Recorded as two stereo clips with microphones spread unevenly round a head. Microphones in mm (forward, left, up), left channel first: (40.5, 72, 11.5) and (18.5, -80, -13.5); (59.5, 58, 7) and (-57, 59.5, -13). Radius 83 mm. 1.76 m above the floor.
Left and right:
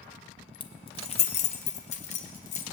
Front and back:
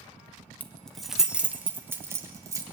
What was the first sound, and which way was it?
Keys jangling, 60° left.